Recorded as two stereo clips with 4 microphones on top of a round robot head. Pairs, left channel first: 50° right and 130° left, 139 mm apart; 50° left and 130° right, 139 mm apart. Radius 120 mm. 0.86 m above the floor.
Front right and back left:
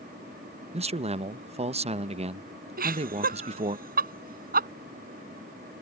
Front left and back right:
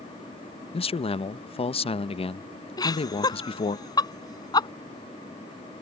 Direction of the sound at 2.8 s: 115° left.